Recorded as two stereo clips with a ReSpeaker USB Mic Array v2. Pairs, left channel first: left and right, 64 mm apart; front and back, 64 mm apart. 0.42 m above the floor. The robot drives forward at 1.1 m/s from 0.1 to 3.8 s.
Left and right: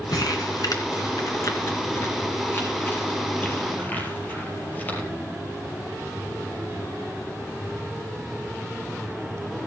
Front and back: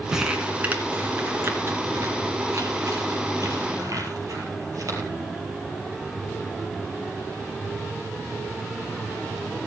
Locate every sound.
0.1 s crumpling: 100° left, 2 m; by 5.1 s 155° left, 5 m